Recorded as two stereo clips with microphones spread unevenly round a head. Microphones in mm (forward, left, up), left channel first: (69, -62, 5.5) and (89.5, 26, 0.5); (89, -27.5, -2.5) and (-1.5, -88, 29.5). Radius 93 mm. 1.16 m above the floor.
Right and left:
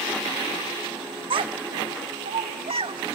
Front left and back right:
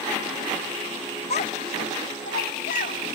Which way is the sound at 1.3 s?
90° left.